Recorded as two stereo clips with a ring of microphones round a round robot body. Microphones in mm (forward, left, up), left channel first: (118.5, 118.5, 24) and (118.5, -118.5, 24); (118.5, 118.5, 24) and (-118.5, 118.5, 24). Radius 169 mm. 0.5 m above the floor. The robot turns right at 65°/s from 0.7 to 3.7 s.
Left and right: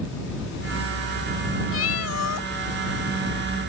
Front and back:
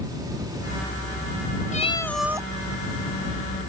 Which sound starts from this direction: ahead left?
A cat meowing, at 1.7 s.